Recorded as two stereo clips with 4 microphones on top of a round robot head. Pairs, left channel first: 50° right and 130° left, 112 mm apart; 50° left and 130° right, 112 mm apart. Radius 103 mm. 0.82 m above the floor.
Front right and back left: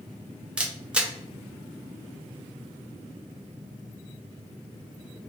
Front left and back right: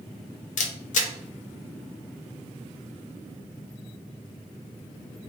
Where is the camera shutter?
50° left, 0.5 m.